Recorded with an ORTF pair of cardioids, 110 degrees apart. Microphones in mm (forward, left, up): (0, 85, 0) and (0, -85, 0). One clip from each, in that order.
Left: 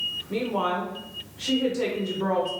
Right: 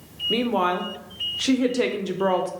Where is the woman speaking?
40° right, 0.6 m.